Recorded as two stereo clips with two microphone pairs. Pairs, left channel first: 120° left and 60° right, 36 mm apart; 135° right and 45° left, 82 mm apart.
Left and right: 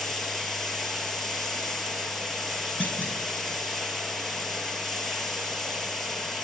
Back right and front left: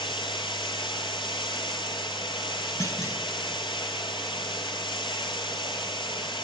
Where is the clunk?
170° left, 7 m.